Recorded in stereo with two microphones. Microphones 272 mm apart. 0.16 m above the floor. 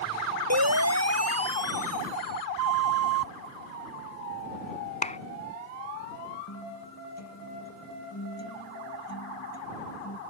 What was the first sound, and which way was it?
A siren, 70° right (ahead or behind).